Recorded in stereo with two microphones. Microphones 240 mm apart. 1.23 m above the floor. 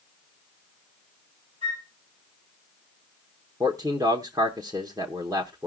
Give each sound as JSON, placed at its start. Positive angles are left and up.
{"t": 1.6, "sound": "a flute", "side_deg": -30, "distance_m": 6.0}
{"t": 3.6, "sound": "a man speaking", "side_deg": -15, "distance_m": 0.9}